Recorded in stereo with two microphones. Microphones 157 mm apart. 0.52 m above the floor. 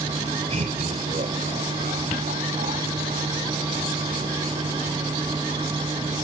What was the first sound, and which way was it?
Laughter, 45° right (ahead or behind).